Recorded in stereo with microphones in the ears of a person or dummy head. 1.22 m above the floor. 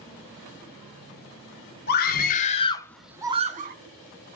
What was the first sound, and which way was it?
A scream, 50° left (ahead or behind).